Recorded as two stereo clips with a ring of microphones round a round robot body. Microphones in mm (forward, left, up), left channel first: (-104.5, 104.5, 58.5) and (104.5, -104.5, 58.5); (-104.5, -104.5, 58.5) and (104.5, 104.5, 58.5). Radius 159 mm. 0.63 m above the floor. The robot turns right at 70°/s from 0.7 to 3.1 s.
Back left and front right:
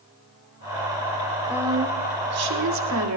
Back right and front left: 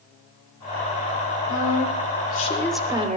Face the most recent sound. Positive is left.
turn(degrees=-20)